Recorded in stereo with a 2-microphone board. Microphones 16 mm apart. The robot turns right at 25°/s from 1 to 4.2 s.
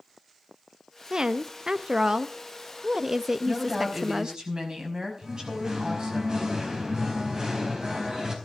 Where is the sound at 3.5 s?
30° right (ahead or behind), 5.5 m; by 6.2 s 50° right (ahead or behind), 5.5 m.